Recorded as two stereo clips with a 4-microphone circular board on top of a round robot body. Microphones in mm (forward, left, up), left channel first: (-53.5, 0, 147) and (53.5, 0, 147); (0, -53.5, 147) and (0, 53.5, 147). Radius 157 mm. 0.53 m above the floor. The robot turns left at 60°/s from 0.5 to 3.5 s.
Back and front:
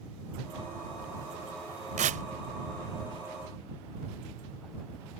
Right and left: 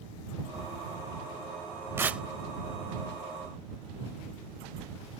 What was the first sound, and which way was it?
Tearing paper, 20° left.